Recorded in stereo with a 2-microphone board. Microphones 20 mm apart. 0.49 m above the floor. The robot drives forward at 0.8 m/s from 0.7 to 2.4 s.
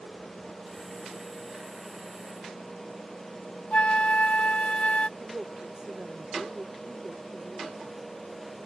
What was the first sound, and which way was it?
A flute, 70° left (ahead or behind).